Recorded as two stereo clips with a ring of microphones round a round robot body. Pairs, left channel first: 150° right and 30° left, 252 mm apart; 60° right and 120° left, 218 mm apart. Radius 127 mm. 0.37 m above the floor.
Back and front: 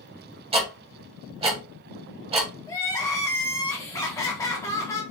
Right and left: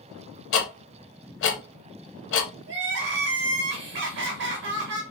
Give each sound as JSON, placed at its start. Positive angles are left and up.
{"t": 0.5, "sound": "ticking", "azimuth_deg": -40, "distance_m": 0.7}
{"t": 2.7, "sound": "crying", "azimuth_deg": 135, "distance_m": 0.7}